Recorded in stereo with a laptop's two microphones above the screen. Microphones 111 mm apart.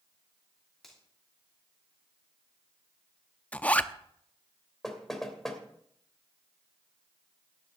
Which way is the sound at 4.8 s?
5° left (ahead or behind).